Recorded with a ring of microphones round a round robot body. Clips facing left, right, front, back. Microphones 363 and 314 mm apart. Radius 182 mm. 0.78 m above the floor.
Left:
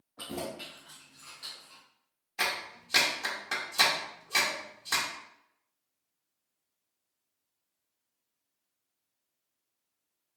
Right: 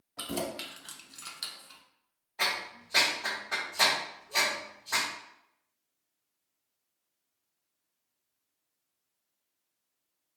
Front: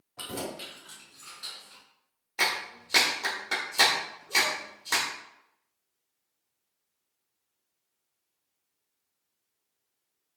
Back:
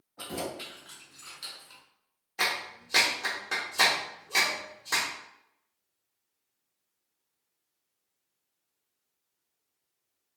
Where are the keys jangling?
55° right, 0.9 m; by 1.8 s 140° right, 0.7 m.